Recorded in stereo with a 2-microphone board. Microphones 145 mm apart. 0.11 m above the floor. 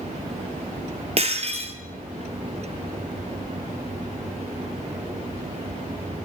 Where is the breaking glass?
45° right (ahead or behind), 1.1 m.